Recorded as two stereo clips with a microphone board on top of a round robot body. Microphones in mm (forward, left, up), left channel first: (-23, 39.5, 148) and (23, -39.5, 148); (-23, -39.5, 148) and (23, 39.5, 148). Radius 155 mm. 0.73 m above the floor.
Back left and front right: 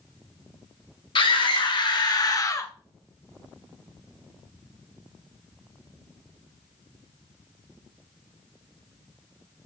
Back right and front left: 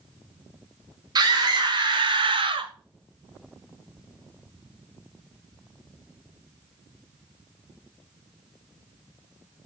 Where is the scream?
100° left, 3 m; by 2.7 s 65° left, 1.8 m.